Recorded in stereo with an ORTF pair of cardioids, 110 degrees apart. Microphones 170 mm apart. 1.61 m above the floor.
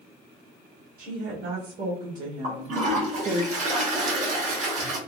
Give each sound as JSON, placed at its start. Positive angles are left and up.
{"t": 1.0, "sound": "a woman speaking", "azimuth_deg": -60, "distance_m": 1.7}
{"t": 2.4, "sound": "a toilet flushing", "azimuth_deg": -45, "distance_m": 1.1}